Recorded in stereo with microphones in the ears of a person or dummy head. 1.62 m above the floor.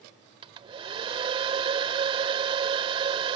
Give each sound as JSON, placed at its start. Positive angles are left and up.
{"t": 0.4, "sound": "a hair dryer", "side_deg": -30}